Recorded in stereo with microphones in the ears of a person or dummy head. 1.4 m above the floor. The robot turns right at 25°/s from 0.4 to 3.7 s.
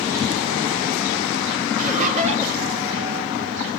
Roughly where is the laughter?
Right.